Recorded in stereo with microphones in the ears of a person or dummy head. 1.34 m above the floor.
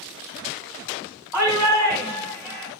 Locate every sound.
1.3 s a shout: 10° right (ahead or behind), 1.2 m